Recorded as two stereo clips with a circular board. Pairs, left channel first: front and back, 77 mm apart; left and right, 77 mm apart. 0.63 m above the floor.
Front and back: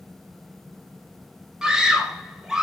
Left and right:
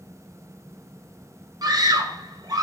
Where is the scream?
100° right, 1.2 m.